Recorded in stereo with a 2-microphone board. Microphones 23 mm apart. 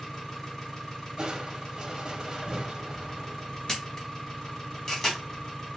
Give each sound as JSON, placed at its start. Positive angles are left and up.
{"t": 0.0, "sound": "an engine running", "side_deg": 30, "distance_m": 1.1}
{"t": 1.2, "sound": "crushing", "side_deg": -35, "distance_m": 0.6}
{"t": 3.7, "sound": "a camera shutter", "side_deg": 30, "distance_m": 0.9}